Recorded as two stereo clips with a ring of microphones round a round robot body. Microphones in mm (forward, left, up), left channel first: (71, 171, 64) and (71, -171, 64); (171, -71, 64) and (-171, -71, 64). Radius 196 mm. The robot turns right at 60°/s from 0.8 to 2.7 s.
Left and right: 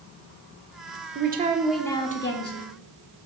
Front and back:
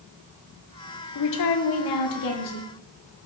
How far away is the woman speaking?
About 1.8 m.